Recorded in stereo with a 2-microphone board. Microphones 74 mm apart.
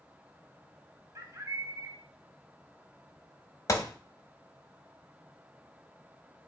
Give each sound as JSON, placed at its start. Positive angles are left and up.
{"t": 1.1, "sound": "a bird", "side_deg": -40, "distance_m": 0.6}
{"t": 3.7, "sound": "a gunshot", "side_deg": 45, "distance_m": 0.6}